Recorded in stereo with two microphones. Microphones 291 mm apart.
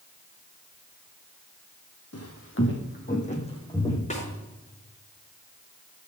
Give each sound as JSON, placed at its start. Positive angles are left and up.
{"t": 2.1, "sound": "footsteps", "side_deg": 60, "distance_m": 2.0}
{"t": 4.1, "sound": "a snare drum", "side_deg": 25, "distance_m": 4.5}